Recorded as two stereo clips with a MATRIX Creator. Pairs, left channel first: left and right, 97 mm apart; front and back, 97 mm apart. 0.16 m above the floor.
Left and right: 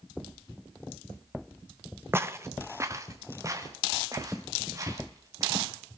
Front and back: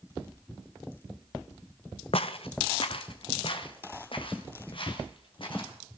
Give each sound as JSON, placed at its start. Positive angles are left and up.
{"t": 2.1, "sound": "footsteps", "azimuth_deg": -25, "distance_m": 0.6}